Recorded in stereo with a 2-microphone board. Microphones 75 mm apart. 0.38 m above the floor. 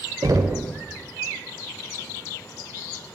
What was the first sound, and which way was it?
Knocking, 45° right (ahead or behind).